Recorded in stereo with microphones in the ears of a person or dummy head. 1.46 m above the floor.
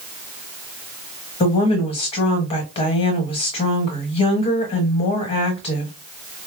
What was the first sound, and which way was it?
A woman speaking, 35° left (ahead or behind).